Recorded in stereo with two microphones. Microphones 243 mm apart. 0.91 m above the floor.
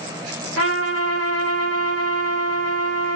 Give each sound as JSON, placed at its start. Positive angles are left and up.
{"t": 0.6, "sound": "a trumpet", "side_deg": -80, "distance_m": 3.5}